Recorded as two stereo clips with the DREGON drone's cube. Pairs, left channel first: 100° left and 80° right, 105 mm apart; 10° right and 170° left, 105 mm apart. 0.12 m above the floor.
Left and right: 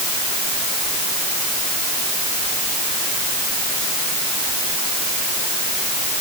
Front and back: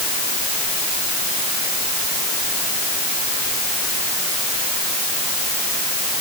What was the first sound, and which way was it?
Only background noise.